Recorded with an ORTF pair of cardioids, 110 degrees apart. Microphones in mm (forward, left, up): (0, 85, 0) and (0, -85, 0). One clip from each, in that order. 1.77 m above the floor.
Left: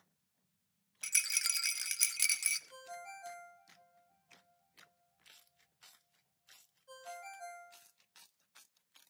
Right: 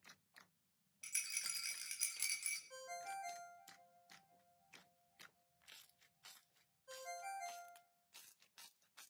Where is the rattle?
55° left, 0.6 m.